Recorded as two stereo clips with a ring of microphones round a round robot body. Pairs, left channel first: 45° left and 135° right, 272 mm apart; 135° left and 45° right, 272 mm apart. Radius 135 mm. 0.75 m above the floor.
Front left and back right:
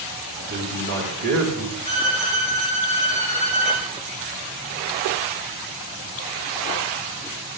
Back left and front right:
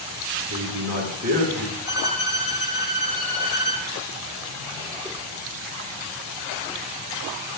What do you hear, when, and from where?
0.5 s a man speaking: 105° right, 4.5 m
1.9 s a violin: 175° right, 4 m